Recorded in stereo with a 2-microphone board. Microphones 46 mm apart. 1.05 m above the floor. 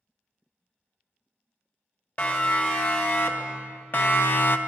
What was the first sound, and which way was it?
A siren, 40° left (ahead or behind).